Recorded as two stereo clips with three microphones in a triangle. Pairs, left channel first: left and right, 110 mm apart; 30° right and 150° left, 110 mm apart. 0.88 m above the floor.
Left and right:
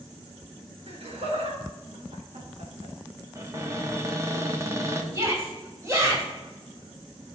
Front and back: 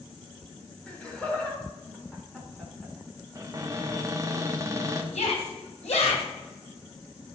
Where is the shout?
25° right, 5 m.